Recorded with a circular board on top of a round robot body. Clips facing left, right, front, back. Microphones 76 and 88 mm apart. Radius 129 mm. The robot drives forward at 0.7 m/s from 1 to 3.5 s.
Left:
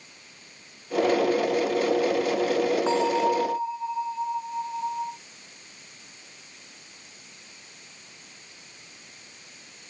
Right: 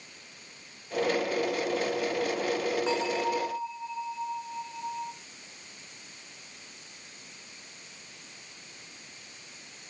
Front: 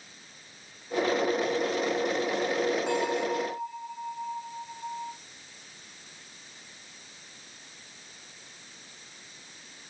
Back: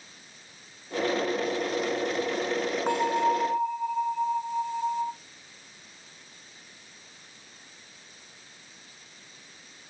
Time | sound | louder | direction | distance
2.9 | a bell | left 6 dB, back 4 dB | 145° left | 1.6 m